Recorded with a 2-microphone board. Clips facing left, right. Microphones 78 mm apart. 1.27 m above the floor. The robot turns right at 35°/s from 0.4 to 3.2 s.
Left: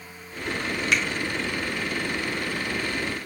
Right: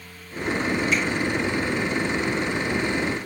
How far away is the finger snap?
About 1.6 m.